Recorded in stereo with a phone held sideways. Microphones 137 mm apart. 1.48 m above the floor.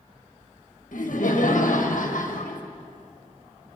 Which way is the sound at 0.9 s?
75° left (ahead or behind).